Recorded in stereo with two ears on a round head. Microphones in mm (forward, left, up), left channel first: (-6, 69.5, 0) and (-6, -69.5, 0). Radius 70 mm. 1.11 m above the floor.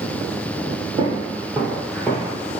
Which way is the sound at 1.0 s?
30° right (ahead or behind).